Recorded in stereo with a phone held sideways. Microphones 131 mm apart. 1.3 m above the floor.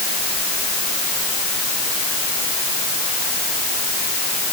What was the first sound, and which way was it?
Only background noise.